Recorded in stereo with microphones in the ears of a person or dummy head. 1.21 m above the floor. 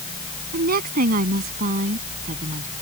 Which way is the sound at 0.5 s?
55° right (ahead or behind).